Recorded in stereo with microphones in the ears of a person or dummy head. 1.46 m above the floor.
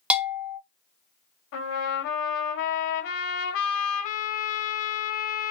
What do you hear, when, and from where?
0.1 s a bell: 5° right (ahead or behind), 0.9 m
1.5 s a trumpet: 65° left (ahead or behind), 1.5 m